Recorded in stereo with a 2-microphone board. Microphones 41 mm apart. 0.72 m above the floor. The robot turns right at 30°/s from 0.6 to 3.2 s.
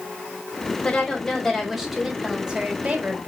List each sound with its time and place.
0.8 s a woman speaking: 155° left, 3.5 m; by 3.3 s 135° right, 3.5 m